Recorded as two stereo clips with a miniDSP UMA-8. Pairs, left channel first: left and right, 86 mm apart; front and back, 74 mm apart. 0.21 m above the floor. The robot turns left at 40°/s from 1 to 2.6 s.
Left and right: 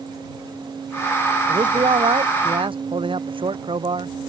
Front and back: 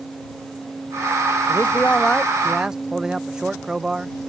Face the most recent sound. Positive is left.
turn(degrees=-95)